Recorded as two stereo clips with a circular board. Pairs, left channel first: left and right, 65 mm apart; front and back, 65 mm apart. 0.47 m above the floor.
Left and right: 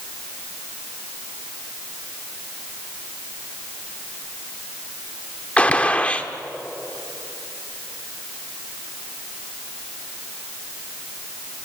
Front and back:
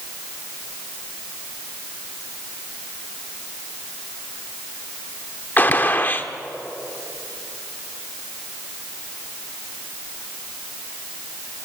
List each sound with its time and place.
5.6 s a gunshot: 35° left, 1.1 m